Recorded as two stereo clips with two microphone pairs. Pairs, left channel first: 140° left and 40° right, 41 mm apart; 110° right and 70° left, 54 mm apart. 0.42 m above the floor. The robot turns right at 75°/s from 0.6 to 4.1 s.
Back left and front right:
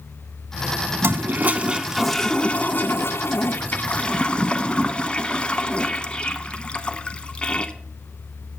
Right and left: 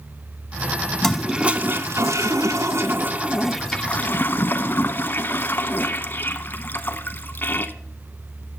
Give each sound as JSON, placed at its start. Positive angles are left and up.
{"t": 1.0, "sound": "a toilet flushing", "azimuth_deg": -30, "distance_m": 0.6}